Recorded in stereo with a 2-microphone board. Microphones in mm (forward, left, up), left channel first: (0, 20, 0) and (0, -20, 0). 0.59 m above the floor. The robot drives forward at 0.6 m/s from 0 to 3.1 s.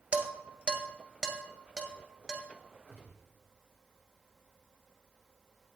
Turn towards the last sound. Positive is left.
turn(degrees=-55)  # may be behind; listen again after turning